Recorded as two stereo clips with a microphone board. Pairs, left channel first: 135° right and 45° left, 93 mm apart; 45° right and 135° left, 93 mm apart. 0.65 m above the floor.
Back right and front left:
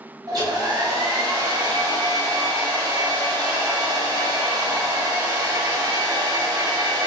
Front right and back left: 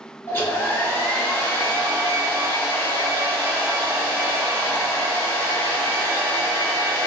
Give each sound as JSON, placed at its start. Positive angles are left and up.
{"t": 0.3, "sound": "a hair dryer", "azimuth_deg": 15, "distance_m": 0.7}